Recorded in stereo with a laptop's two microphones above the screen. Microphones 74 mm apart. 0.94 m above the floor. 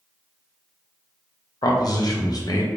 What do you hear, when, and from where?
1.6 s a man speaking: 60° left (ahead or behind), 0.6 m